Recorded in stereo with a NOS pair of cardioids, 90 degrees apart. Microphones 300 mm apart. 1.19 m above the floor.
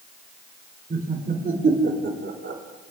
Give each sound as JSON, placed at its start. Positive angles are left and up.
{"t": 0.9, "sound": "laughter", "azimuth_deg": -30, "distance_m": 4.0}